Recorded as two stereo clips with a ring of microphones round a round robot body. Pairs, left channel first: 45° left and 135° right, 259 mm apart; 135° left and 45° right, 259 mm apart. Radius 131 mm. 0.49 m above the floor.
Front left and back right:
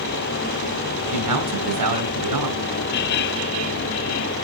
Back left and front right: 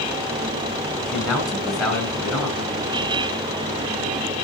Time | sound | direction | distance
1.1 | a man speaking | 135° right | 4.5 m